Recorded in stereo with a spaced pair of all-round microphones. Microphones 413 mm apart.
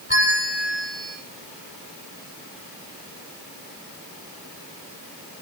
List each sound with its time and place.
0.1 s a bell: 25° left (ahead or behind), 10 m